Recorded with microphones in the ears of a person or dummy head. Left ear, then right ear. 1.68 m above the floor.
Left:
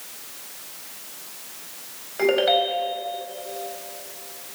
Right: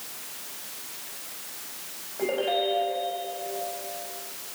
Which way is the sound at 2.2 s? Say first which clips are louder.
Left 7 dB; 60° left (ahead or behind).